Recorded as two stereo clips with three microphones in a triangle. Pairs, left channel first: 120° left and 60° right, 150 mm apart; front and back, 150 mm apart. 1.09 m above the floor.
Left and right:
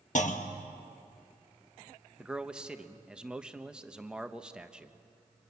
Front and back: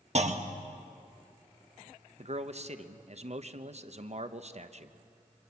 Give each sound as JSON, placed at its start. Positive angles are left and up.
{"t": 0.1, "sound": "a clunk", "azimuth_deg": 145, "distance_m": 1.3}
{"t": 2.2, "sound": "a man speaking", "azimuth_deg": -145, "distance_m": 1.1}